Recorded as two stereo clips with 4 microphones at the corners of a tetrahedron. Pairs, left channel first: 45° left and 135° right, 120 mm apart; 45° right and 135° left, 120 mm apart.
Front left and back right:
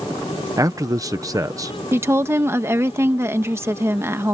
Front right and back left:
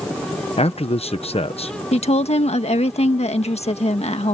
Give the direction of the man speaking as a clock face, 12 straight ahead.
2 o'clock.